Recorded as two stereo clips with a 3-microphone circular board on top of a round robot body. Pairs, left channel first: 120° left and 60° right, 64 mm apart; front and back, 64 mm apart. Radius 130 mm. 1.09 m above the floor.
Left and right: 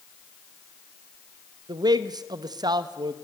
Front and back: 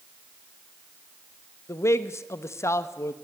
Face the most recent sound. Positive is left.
turn(degrees=-45)